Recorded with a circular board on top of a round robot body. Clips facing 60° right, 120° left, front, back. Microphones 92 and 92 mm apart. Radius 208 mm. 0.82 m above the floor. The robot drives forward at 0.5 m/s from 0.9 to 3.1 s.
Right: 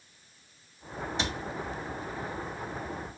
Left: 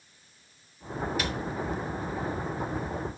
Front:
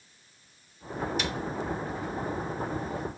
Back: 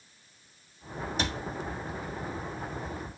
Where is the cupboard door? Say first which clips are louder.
Left 2 dB, even; 125° right, 1.7 m.